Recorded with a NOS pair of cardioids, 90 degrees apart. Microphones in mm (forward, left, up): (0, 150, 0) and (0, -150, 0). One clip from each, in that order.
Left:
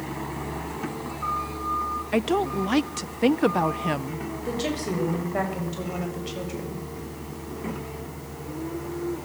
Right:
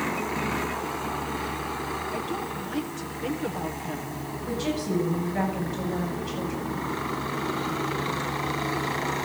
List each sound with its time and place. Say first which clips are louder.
2.1 s a woman speaking: left 7 dB; 70° left, 0.8 m
4.5 s a woman speaking: left 1 dB; 65° left, 7 m